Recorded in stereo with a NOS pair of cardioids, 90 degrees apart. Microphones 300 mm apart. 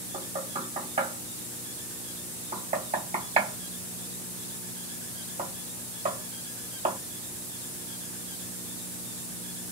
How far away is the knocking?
About 1.7 m.